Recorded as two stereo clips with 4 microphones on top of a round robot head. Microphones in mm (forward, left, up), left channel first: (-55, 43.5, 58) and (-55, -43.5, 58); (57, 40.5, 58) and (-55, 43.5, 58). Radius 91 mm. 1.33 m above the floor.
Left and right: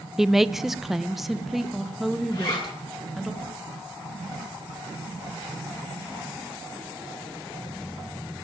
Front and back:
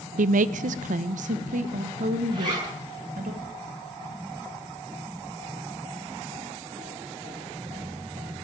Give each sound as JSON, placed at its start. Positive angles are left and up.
{"t": 0.2, "sound": "a woman speaking", "azimuth_deg": -175, "distance_m": 0.6}
{"t": 2.3, "sound": "a zipper", "azimuth_deg": 125, "distance_m": 9.0}